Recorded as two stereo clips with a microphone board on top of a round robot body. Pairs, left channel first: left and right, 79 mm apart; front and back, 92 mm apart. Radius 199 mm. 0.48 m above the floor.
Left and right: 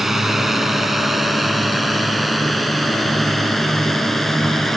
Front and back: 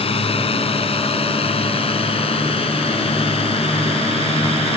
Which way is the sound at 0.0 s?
5° right.